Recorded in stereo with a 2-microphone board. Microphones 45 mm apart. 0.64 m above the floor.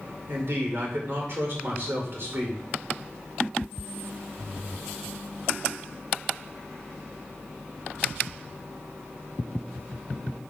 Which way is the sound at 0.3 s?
60° right (ahead or behind).